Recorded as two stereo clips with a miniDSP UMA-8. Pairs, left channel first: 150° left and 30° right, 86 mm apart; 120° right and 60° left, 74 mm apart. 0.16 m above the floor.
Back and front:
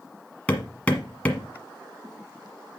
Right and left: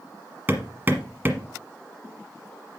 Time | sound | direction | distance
0.5 | hammering | 90° left | 1.3 m